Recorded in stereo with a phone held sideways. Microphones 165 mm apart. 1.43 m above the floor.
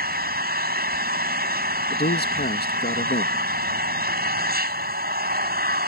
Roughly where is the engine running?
Right.